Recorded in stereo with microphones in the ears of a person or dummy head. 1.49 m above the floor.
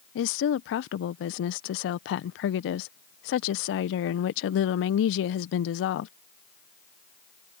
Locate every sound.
0.1 s a woman speaking: 65° left (ahead or behind)